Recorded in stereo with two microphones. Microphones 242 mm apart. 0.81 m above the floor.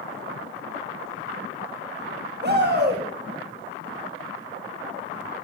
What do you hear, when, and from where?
2.4 s a shout: 45° right (ahead or behind), 1.5 m